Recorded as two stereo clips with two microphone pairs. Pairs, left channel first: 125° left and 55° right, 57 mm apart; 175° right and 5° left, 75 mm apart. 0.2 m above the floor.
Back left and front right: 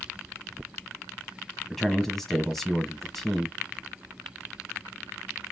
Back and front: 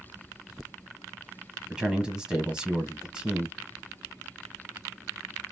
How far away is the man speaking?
About 1.0 m.